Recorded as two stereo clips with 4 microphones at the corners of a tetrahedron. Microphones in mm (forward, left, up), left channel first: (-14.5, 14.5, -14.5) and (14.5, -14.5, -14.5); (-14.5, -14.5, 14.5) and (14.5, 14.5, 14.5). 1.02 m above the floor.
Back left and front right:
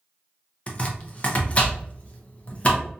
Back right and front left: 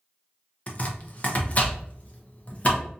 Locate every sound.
0.7 s chopping: straight behind, 0.5 m